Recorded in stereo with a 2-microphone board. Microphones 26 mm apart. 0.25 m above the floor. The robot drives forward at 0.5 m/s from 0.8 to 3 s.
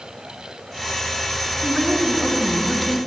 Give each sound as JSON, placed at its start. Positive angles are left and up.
{"t": 1.6, "sound": "a woman speaking", "side_deg": -20, "distance_m": 2.5}